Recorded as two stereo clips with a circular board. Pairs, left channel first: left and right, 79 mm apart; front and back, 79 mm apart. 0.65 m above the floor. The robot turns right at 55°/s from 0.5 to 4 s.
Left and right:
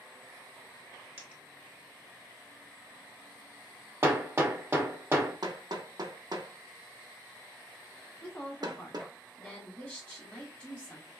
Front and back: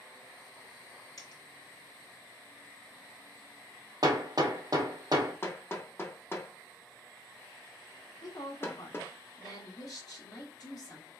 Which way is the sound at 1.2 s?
30° right.